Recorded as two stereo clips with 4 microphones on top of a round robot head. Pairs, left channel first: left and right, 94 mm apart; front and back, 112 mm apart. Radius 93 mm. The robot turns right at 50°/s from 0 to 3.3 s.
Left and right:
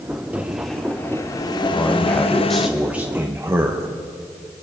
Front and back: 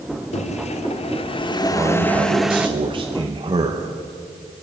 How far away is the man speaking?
About 1.0 m.